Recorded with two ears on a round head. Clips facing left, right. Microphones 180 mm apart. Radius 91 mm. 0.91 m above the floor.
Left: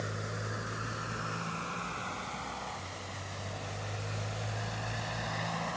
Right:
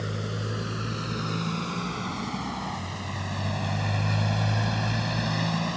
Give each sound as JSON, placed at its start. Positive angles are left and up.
{"t": 0.0, "sound": "a motorcycle", "side_deg": -40}